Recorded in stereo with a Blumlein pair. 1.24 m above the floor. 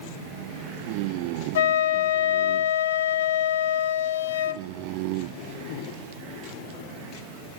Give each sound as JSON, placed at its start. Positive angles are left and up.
{"t": 1.6, "sound": "a flute", "azimuth_deg": 60, "distance_m": 0.7}